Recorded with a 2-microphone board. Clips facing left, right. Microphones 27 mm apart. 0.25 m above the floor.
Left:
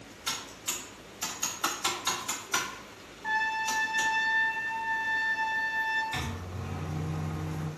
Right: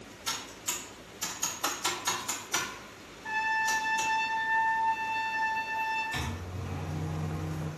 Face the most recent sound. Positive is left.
turn(degrees=40)  # may be behind; listen again after turning